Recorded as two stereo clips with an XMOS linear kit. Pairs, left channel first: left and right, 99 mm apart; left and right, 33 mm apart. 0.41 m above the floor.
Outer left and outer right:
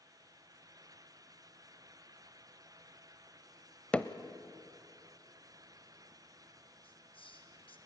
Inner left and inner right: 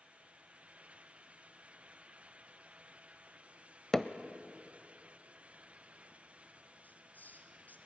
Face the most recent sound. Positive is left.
turn(degrees=60)  # may be behind; listen again after turning